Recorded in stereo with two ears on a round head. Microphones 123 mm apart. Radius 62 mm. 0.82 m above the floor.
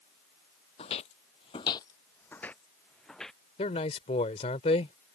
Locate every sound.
0.8 s footsteps: 45° left (ahead or behind); by 3.4 s centre (ahead or behind)
3.6 s a man speaking: 45° left (ahead or behind)